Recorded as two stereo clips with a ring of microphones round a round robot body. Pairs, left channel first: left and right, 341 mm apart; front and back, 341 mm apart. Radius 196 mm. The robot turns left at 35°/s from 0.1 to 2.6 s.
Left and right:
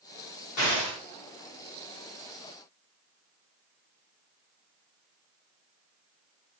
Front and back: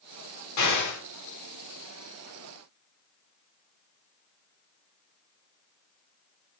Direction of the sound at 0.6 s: 40° left.